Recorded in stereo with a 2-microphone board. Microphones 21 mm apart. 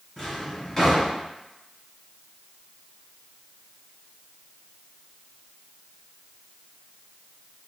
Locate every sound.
0.2 s a drawer: 30° left (ahead or behind), 1.6 m